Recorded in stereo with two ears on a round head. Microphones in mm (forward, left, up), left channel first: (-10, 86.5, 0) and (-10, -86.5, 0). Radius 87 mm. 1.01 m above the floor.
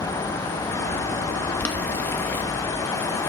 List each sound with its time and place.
1.6 s boiling: 10° left (ahead or behind), 0.9 m